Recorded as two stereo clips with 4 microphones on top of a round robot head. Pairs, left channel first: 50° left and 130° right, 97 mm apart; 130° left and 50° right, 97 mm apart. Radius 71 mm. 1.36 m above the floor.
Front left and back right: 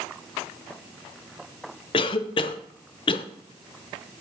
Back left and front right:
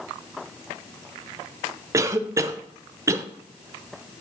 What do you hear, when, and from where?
1.9 s a cough: 10° left, 0.7 m